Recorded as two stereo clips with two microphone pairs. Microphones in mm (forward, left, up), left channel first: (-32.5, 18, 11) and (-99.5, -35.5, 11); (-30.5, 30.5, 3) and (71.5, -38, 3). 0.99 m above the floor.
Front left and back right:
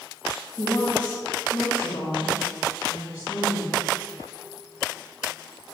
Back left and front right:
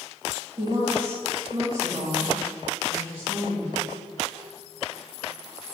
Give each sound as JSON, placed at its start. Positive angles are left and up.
{"t": 0.6, "sound": "a woman speaking", "azimuth_deg": 5, "distance_m": 1.8}